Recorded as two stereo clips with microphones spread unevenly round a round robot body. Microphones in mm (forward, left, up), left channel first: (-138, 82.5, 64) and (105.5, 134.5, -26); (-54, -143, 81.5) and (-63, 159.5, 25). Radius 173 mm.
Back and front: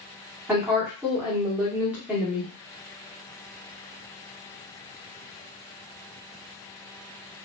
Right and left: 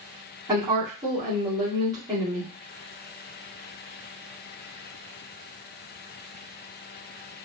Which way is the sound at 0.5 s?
50° left.